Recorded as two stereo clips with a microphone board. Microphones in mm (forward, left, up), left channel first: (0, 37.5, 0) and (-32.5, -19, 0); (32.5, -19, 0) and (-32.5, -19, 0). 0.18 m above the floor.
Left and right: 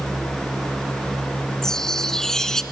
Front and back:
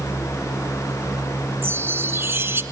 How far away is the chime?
About 1.9 m.